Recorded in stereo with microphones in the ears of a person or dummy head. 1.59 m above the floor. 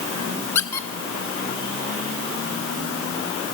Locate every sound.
0.6 s a squeak: 15° left (ahead or behind), 0.8 m